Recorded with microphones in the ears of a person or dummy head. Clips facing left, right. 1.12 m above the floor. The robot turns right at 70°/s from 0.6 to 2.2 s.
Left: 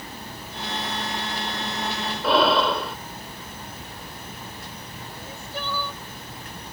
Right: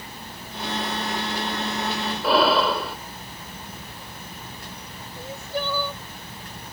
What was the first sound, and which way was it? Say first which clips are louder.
Breathing: even; centre (ahead or behind).